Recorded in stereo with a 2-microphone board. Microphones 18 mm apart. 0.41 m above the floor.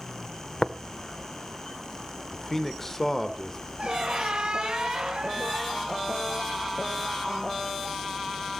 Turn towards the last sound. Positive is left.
turn(degrees=-55)  # may be behind; listen again after turning